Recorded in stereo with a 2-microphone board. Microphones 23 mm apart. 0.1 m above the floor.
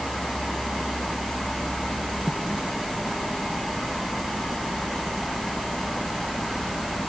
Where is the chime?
I don't hear a chime.